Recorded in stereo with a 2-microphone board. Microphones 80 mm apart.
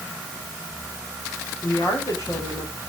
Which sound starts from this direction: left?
A woman speaking, at 1.6 s.